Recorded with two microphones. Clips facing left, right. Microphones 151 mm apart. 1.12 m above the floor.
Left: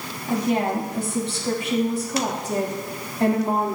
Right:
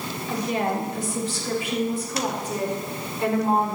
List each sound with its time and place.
0.3 s a woman speaking: 50° left (ahead or behind), 2.5 m; by 3.8 s 75° left (ahead or behind), 3.5 m